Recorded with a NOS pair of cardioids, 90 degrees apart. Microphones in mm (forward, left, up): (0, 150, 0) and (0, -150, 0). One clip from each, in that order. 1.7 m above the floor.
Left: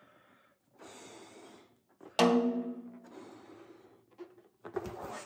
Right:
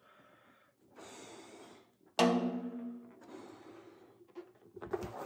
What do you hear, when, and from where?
2.2 s a snare drum: 10° left, 0.5 m